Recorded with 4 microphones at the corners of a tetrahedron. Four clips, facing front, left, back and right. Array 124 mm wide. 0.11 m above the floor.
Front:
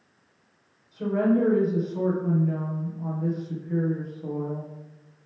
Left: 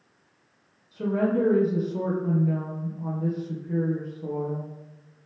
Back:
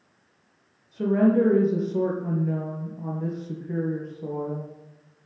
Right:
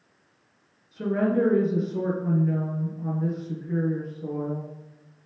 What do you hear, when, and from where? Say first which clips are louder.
0.9 s a woman speaking: even, back 3 dB; straight behind, 3 m